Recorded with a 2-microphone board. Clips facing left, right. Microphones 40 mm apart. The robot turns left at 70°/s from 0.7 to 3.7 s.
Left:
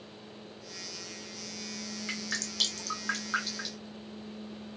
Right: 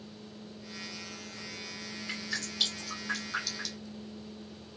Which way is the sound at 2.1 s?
50° left (ahead or behind).